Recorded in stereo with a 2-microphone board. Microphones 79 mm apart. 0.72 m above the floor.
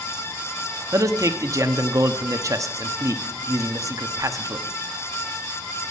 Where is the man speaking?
45° right (ahead or behind), 0.9 m.